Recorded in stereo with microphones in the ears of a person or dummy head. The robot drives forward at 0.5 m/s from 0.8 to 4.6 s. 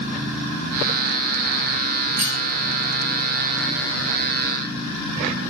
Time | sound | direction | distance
2.2 | cutlery clinking | 50° right (ahead or behind) | 3 m